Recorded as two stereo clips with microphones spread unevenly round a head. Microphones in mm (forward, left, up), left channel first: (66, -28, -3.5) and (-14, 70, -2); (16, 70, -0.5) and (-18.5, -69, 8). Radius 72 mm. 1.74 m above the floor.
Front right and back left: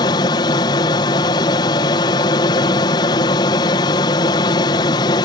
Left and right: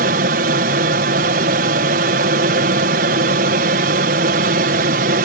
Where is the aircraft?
110° right.